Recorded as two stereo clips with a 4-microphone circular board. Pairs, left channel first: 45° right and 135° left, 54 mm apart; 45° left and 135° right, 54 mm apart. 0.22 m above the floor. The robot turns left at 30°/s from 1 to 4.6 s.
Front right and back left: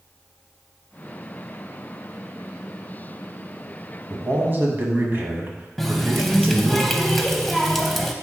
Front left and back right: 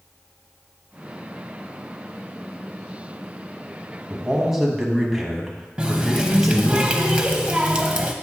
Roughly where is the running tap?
Behind right.